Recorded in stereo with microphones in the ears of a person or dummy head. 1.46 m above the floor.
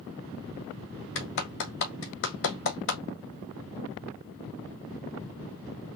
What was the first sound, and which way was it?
A clap, 65° left (ahead or behind).